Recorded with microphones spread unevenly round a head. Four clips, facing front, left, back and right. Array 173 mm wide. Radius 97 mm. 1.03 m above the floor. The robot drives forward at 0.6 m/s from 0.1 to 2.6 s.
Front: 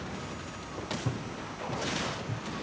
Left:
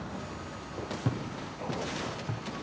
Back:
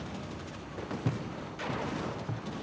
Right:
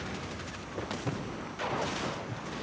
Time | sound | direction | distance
1.1 | footsteps | 115° left | 1.8 m